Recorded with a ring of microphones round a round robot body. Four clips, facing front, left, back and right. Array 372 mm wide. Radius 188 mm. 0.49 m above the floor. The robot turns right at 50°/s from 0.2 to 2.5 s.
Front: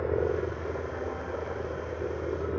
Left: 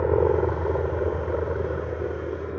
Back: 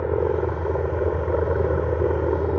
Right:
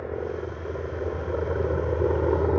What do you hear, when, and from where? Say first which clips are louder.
0.0 s a helicopter: left 10 dB, back 6 dB; 115° left; by 2.6 s 130° right